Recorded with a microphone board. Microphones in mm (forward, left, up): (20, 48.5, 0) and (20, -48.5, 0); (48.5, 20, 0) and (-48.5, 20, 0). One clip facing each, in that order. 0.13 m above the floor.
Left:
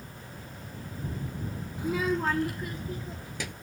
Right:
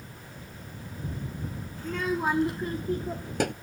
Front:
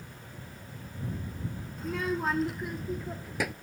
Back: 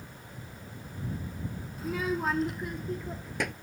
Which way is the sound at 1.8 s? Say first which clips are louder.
Left 1 dB, even; 100° left.